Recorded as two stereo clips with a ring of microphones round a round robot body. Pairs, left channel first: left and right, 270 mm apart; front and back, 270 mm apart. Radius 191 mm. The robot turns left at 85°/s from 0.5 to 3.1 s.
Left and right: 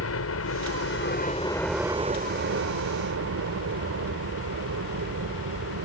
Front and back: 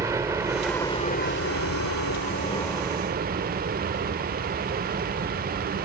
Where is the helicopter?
105° left; by 5.8 s 120° right.